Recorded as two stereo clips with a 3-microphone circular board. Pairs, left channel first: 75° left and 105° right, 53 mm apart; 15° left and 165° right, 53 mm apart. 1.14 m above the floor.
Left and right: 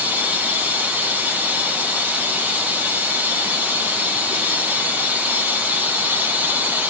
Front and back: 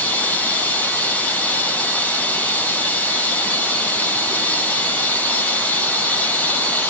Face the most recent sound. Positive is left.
turn(degrees=-45)